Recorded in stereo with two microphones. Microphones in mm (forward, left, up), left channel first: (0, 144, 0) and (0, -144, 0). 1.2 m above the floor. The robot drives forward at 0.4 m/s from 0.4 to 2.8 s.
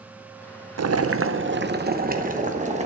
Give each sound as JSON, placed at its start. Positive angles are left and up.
{"t": 0.8, "sound": "boiling", "side_deg": -65, "distance_m": 0.5}